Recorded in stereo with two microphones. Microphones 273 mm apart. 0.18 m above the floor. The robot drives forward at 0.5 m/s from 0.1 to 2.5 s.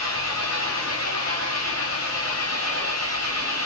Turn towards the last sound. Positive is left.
turn(degrees=65)  # may be behind; listen again after turning